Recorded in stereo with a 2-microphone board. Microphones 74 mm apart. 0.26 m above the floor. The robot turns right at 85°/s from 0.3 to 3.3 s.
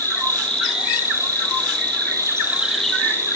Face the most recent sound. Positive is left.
turn(degrees=45)